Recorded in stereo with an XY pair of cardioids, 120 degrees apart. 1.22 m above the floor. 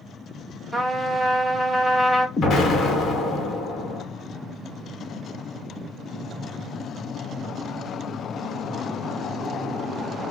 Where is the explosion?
55° left, 1.3 m.